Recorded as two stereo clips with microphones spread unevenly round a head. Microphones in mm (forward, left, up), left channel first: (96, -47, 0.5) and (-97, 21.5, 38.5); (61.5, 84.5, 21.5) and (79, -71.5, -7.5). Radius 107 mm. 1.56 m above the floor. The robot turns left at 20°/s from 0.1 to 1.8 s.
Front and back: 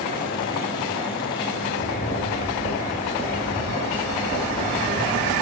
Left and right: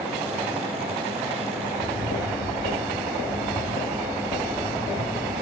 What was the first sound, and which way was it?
Footsteps, 115° left.